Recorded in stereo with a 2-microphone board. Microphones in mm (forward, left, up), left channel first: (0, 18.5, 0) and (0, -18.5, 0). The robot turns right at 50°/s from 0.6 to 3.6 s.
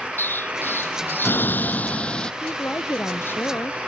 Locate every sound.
0.2 s an explosion: 75° left; by 2.3 s 160° left
2.4 s a woman speaking: 60° left; by 3.8 s 120° left